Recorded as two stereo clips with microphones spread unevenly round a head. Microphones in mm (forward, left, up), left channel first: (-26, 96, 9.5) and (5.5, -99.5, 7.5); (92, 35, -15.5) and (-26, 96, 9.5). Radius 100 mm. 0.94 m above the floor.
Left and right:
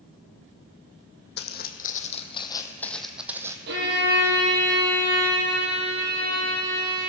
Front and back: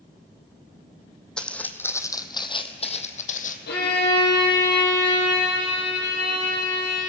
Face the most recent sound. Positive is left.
turn(degrees=-35)